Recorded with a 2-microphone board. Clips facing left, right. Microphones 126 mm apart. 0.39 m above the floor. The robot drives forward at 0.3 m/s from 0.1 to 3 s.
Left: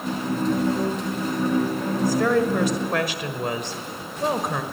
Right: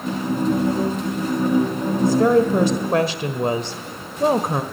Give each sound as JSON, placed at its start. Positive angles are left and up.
{"t": 2.0, "sound": "a woman speaking", "side_deg": -25, "distance_m": 1.6}